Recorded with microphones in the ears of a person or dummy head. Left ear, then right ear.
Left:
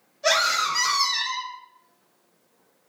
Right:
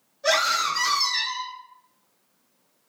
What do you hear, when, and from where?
0.2 s a scream: 65° left (ahead or behind), 1.4 m